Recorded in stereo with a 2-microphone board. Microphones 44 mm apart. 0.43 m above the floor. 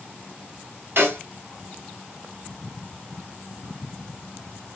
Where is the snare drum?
60° right (ahead or behind), 1.3 m.